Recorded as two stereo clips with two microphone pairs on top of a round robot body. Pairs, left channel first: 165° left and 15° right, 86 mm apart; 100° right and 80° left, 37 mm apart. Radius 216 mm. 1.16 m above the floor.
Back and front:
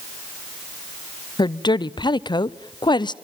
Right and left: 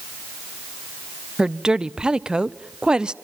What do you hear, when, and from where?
1.4 s a woman speaking: 150° left, 0.9 m